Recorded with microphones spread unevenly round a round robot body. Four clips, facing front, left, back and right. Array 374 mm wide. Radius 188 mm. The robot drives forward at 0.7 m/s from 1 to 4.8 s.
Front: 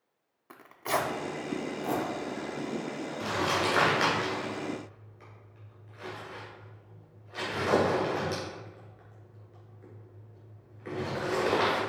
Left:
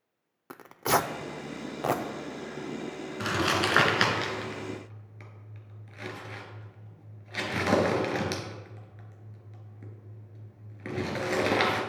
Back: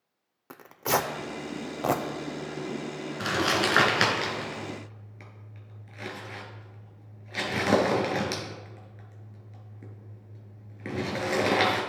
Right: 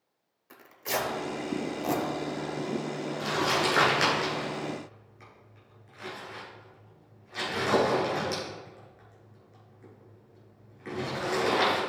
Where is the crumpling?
120° left, 1.7 m; by 11.8 s 140° left, 2.5 m.